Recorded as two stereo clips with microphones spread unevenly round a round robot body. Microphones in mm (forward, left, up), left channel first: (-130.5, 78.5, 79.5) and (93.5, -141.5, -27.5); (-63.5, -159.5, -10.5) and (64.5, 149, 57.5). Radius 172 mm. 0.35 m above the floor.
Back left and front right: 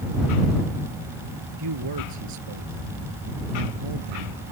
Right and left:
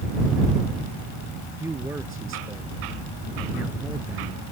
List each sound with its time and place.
1.6 s a man speaking: 15° right